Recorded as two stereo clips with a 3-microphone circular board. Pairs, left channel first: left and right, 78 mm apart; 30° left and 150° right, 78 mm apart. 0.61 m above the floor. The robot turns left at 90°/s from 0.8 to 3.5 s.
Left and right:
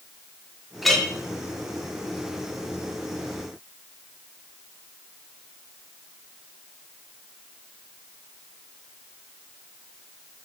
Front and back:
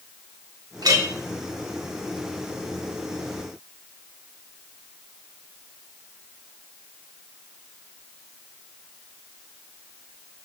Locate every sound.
0.8 s a clink: 175° right, 0.5 m; by 1.1 s 160° left, 0.5 m